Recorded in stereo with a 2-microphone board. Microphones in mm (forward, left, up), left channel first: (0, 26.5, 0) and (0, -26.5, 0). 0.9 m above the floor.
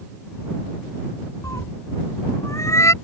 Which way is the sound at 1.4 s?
70° left (ahead or behind).